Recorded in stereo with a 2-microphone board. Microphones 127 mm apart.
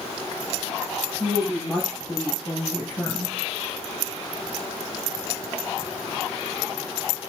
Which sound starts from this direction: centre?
A woman speaking, at 1.2 s.